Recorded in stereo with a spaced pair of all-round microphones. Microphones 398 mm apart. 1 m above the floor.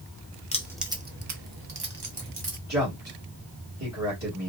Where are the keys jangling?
15° left (ahead or behind), 0.6 m; by 2.6 s 85° right, 1.3 m.